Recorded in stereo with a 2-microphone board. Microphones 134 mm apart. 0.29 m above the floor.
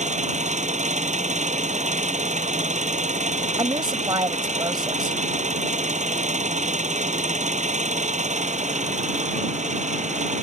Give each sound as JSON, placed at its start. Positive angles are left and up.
{"t": 0.0, "sound": "an engine running", "side_deg": -65}
{"t": 3.6, "sound": "a woman speaking", "side_deg": -40}